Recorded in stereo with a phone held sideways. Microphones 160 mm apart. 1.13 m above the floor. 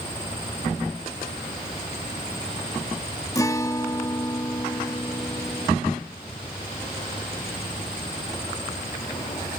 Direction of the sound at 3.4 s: 20° left (ahead or behind).